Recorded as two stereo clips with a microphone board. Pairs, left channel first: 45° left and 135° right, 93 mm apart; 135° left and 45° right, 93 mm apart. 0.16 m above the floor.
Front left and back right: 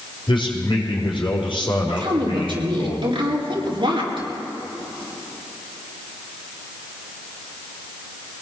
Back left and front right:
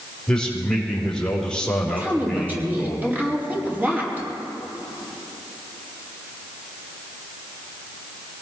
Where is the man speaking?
55° left, 4.5 m.